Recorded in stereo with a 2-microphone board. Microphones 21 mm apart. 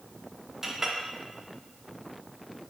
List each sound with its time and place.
0.6 s a clink: 20° right (ahead or behind), 0.5 m